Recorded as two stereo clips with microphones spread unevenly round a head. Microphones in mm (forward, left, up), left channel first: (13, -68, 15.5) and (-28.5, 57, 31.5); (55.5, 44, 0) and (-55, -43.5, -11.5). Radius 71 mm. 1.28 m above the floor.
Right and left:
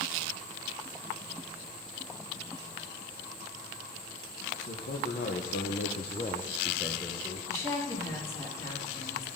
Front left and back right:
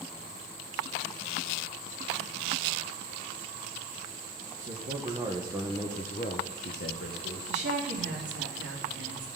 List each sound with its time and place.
4.6 s a man speaking: 100° right, 1.5 m; by 7.4 s 25° left, 1.5 m
7.5 s a woman speaking: 140° right, 3 m